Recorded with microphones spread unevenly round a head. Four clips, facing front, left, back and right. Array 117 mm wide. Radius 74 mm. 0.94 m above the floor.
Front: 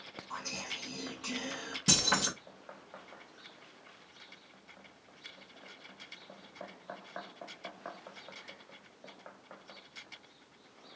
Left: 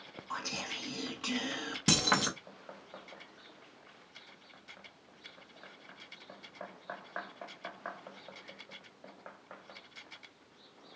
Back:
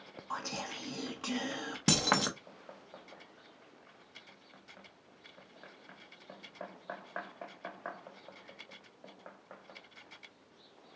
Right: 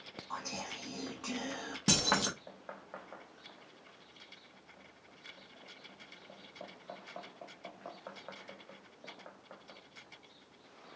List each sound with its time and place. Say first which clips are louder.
0.3 s whispering: left 2 dB, back 4 dB; 170° right, 0.6 m
1.9 s keys jangling: left 2 dB, back 2 dB; 170° right, 0.6 m